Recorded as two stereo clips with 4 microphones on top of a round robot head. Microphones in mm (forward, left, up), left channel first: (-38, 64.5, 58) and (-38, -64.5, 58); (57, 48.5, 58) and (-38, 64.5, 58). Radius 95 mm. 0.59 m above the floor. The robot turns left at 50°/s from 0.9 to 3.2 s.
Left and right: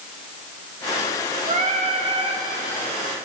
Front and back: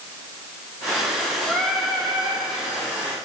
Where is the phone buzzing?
No phone buzzing in this recording.